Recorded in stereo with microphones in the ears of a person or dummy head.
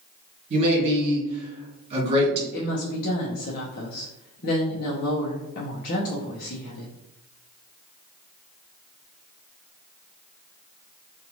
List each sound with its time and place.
0.5 s a man speaking: 40° right (ahead or behind), 1.5 m
2.5 s a woman speaking: 50° left (ahead or behind), 0.6 m